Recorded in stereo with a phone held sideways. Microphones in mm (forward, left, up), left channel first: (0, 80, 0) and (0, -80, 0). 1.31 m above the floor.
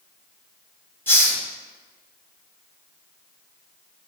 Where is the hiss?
15° left (ahead or behind), 0.8 m.